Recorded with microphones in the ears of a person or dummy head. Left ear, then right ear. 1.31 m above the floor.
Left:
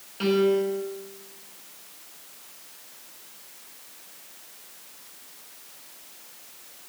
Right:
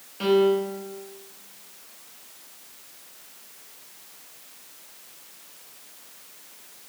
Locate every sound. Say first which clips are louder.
0.2 s a piano: right 2 dB; centre (ahead or behind), 1.5 m